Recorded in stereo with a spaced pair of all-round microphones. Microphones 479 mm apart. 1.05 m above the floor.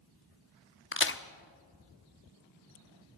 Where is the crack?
25° left (ahead or behind), 0.6 m.